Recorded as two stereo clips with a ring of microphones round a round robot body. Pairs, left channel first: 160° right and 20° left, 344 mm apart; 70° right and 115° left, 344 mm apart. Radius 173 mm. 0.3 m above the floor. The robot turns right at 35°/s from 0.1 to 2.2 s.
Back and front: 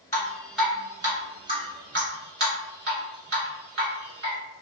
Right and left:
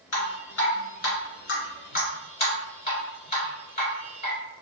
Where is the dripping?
80° right, 1.8 m; by 4.4 s 5° right, 1.8 m.